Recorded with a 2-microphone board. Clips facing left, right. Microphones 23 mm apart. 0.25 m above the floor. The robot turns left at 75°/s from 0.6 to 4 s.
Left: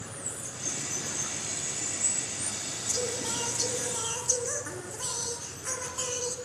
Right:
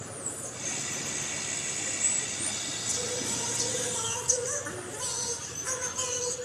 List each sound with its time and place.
0.0 s running water: 155° left, 3.5 m; by 6.5 s 100° right, 3.5 m
2.9 s singing: 75° left, 3.5 m; by 6.4 s 10° right, 3.5 m